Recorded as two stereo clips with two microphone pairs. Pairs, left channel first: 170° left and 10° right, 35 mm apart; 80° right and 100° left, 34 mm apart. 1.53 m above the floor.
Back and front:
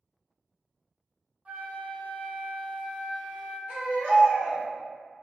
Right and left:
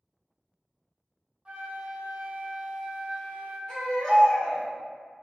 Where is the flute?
40° left, 0.8 m.